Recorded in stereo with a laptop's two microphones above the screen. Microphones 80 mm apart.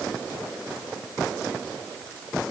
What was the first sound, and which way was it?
Only background noise.